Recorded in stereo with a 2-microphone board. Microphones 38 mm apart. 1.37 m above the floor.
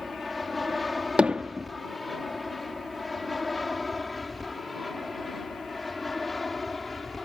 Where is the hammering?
30° right (ahead or behind).